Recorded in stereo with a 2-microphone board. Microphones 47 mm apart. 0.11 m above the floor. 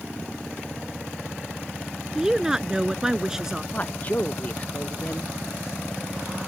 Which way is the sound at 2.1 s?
10° right (ahead or behind).